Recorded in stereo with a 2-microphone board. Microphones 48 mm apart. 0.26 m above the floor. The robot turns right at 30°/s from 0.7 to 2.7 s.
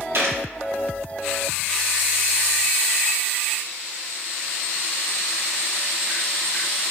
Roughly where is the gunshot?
Right.